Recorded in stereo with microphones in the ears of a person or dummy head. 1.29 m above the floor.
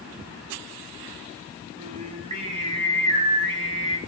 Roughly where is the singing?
Right.